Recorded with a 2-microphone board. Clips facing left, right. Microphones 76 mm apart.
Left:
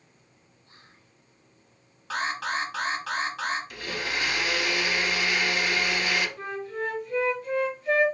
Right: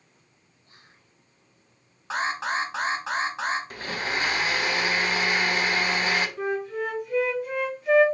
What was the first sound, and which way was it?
Whispering, 35° left (ahead or behind).